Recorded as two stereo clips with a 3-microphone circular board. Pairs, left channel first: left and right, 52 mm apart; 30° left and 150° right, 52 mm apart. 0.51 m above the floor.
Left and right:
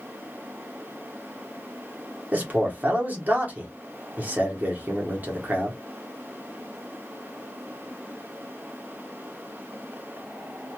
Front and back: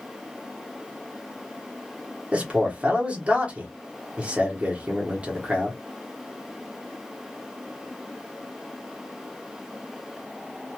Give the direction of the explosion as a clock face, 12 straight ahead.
No explosion in this recording.